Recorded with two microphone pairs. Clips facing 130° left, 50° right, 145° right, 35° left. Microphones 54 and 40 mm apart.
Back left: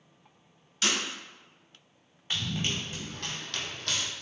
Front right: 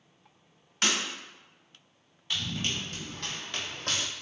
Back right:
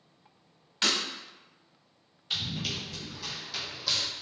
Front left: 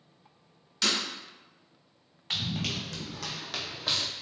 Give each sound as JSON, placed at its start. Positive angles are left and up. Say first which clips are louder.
{"t": 0.8, "sound": "breaking glass", "louder": "front right 1 dB, even", "azimuth_deg": -85, "distance_m": 0.9}
{"t": 2.3, "sound": "running footsteps", "louder": "back left 1 dB, front left 1 dB", "azimuth_deg": 70, "distance_m": 1.3}